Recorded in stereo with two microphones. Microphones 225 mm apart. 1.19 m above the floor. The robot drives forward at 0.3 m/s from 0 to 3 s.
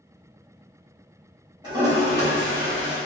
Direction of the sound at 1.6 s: 20° right (ahead or behind).